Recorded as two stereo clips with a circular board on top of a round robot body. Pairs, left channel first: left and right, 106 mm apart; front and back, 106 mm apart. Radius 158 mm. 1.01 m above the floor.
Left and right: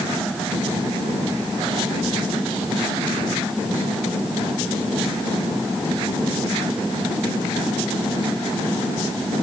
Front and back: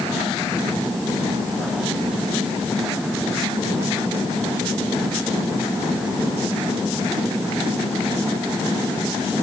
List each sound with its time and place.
Only background noise.